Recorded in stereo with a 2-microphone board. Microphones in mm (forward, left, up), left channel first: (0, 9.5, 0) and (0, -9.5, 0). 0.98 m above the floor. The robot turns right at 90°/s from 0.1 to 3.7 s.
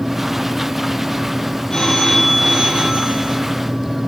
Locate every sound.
1.7 s a phone ringing: 140° left, 4 m; by 3.4 s 65° right, 4 m